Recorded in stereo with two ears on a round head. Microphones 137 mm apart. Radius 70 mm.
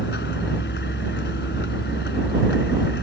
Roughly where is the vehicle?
Left.